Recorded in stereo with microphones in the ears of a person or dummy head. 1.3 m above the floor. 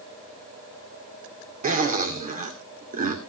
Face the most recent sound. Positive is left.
turn(degrees=-45)  # may be behind; listen again after turning